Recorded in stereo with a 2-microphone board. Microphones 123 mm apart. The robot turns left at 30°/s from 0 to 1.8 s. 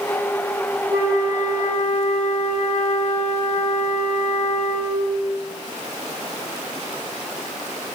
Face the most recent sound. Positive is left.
turn(degrees=-40)  # may be behind; listen again after turning